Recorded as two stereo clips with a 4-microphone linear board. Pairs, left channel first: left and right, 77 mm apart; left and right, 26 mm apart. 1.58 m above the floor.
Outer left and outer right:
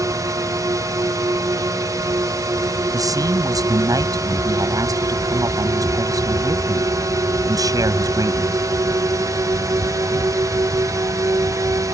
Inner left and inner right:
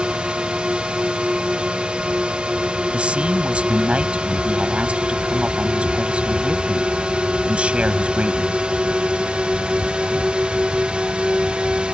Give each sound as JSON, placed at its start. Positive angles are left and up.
{"t": 0.0, "sound": "a drone", "side_deg": -45}
{"t": 2.9, "sound": "a man speaking", "side_deg": -50}